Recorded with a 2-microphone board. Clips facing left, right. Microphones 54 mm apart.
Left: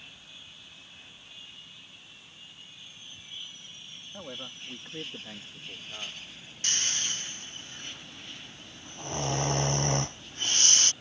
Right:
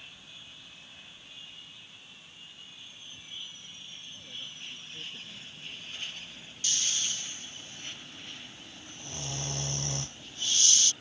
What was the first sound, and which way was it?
A man speaking, 70° left (ahead or behind).